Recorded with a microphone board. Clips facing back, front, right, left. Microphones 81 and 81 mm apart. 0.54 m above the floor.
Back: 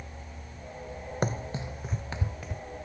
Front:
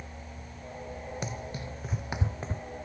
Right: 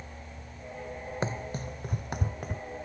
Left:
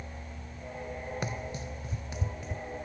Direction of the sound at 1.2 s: 145° right.